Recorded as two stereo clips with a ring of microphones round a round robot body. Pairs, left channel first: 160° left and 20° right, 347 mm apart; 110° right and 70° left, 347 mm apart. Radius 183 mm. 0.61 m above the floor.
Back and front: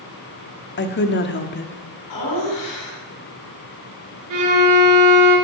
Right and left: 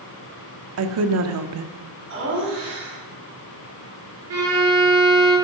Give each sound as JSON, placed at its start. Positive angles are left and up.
{"t": 0.8, "sound": "a woman speaking", "azimuth_deg": 105, "distance_m": 1.3}
{"t": 2.1, "sound": "laughter", "azimuth_deg": 125, "distance_m": 7.0}
{"t": 4.3, "sound": "a violin", "azimuth_deg": 20, "distance_m": 6.5}